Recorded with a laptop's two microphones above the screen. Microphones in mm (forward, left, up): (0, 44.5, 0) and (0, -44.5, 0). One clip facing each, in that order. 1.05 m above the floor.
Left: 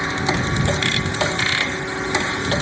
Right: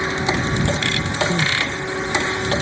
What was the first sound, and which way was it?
Crying, 70° right (ahead or behind).